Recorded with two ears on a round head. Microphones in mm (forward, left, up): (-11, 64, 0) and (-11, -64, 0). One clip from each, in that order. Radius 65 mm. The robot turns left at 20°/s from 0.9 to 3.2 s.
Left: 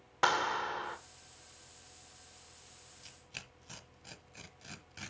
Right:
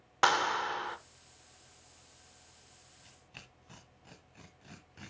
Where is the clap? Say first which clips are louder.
Right 3 dB; 20° right (ahead or behind), 1.0 m.